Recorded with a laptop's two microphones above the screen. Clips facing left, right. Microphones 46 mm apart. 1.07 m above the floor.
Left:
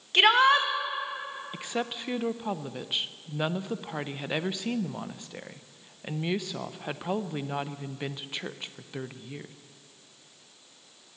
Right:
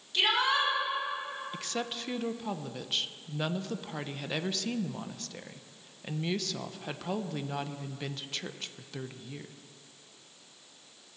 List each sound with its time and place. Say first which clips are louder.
0.1 s a shout: left 7 dB; 60° left (ahead or behind), 1.5 m
1.5 s a woman speaking: left 6 dB; 20° left (ahead or behind), 0.6 m